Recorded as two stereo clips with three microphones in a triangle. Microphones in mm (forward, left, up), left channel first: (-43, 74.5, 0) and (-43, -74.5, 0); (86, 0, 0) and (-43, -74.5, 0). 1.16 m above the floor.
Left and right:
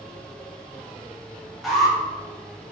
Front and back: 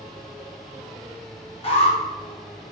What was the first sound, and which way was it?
An alarm, straight ahead.